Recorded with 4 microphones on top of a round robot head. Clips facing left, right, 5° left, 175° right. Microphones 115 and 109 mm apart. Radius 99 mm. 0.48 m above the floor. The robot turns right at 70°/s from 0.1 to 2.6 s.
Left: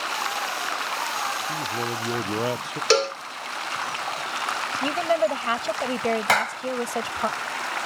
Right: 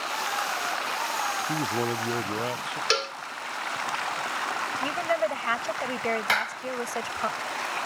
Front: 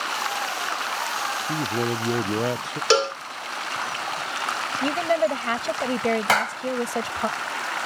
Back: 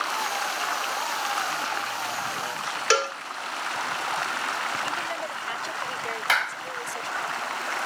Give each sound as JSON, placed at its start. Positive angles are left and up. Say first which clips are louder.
{"t": 1.5, "sound": "a man speaking", "louder": "right 1 dB, front 5 dB", "azimuth_deg": -40}
{"t": 2.9, "sound": "a cowbell", "louder": "left 10 dB, front 5 dB", "azimuth_deg": 60}
{"t": 4.8, "sound": "a woman speaking", "louder": "left 5 dB, front 9 dB", "azimuth_deg": 25}
{"t": 6.3, "sound": "a clap", "louder": "left 6 dB, front 5 dB", "azimuth_deg": 50}